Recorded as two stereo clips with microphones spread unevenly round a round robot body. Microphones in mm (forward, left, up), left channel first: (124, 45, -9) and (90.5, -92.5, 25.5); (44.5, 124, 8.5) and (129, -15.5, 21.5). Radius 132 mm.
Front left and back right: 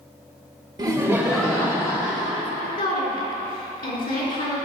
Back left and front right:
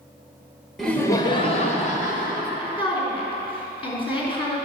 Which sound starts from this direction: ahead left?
A woman speaking, at 2.6 s.